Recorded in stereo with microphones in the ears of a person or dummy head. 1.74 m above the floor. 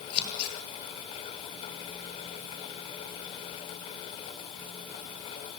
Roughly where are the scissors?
Left.